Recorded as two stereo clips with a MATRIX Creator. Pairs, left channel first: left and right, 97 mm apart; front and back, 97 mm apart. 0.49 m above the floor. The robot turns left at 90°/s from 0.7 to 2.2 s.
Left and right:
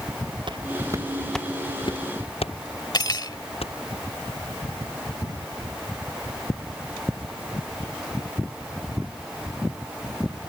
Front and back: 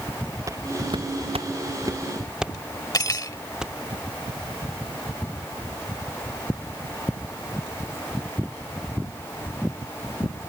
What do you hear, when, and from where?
0.5 s footsteps: 125° right; by 3.8 s 95° left
2.9 s cutlery clinking: 50° left